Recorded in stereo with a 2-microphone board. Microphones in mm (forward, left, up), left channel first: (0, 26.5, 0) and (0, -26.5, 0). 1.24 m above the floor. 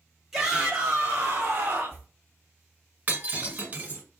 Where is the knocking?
I don't hear knocking.